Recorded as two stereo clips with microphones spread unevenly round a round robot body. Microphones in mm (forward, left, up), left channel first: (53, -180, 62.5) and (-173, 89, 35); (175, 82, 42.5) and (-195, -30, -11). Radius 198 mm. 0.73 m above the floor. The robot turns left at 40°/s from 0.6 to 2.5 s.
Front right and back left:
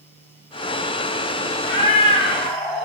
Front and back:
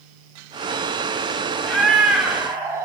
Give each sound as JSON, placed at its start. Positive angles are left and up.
{"t": 1.6, "sound": "a cat meowing", "azimuth_deg": -35, "distance_m": 0.5}